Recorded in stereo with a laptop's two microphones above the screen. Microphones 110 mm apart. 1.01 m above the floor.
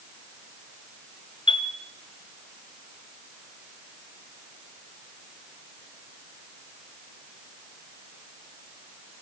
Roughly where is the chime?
Left.